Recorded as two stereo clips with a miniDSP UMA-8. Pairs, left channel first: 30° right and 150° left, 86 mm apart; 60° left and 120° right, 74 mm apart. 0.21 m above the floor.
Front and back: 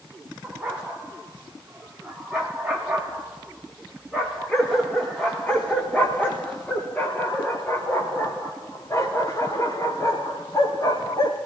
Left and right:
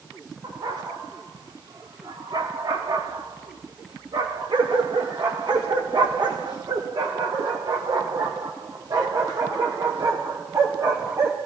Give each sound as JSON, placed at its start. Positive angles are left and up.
{"t": 0.4, "sound": "a dog barking", "azimuth_deg": -135, "distance_m": 7.5}